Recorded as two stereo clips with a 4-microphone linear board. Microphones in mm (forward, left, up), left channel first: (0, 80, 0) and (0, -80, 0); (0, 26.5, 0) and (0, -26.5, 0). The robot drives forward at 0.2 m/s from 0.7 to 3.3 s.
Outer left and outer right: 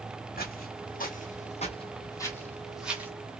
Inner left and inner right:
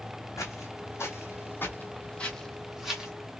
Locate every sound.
0.4 s footsteps: 70° left (ahead or behind), 1.5 m; by 3.1 s 15° right (ahead or behind), 1.1 m